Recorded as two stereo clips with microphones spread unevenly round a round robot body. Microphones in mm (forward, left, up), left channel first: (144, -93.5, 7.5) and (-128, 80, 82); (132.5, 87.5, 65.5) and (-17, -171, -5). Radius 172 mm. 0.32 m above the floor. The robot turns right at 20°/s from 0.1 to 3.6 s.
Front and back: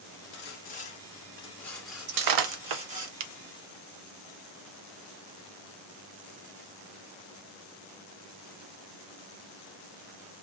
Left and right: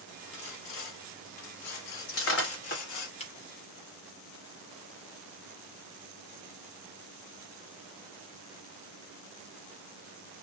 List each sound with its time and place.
0.3 s sawing: 25° left, 0.8 m; by 3.1 s 80° left, 0.8 m
2.1 s breaking glass: 115° left, 0.7 m; by 3.3 s 140° left, 0.7 m